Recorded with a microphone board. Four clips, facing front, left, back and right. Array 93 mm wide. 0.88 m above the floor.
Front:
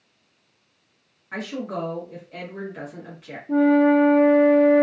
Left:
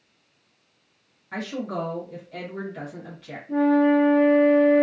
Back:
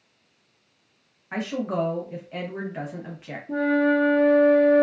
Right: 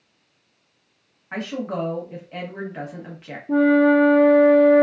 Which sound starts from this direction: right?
A flute, at 3.5 s.